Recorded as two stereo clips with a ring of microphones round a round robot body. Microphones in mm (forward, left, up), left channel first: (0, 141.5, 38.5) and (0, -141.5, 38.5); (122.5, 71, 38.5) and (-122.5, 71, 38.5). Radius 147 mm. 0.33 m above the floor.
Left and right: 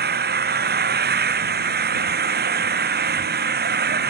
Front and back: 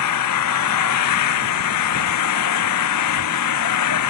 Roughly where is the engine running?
Ahead right.